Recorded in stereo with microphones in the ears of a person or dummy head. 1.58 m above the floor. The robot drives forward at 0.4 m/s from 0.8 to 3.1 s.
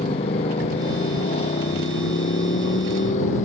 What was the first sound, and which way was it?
A motorcycle, 35° left (ahead or behind).